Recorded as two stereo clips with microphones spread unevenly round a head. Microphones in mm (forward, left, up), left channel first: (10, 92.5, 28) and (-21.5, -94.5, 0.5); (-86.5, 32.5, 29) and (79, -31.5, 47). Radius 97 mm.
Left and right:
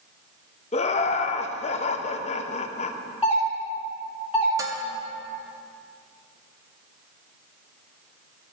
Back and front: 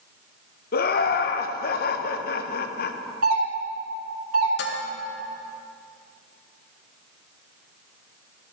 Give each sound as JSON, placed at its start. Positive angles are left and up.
{"t": 0.7, "sound": "laughter", "azimuth_deg": 140, "distance_m": 0.7}
{"t": 3.2, "sound": "a doorbell", "azimuth_deg": -20, "distance_m": 3.0}
{"t": 4.6, "sound": "dishes clattering", "azimuth_deg": -175, "distance_m": 0.8}